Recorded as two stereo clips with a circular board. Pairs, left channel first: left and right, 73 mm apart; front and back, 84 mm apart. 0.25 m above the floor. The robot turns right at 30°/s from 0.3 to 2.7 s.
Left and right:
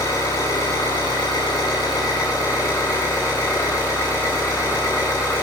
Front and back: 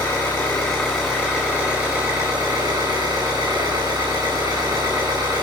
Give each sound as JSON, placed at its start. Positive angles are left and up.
{"t": 0.0, "sound": "an engine running", "azimuth_deg": 70, "distance_m": 8.0}